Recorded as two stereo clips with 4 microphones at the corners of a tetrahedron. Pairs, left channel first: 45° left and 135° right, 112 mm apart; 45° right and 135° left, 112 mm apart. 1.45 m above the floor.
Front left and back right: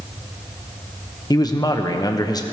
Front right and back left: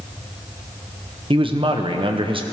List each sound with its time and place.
1.3 s a man speaking: 100° left, 1.0 m